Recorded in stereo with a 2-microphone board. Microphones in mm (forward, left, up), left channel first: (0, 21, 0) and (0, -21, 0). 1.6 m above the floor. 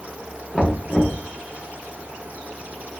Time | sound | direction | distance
0.5 | knocking | 15° left (ahead or behind) | 1.2 m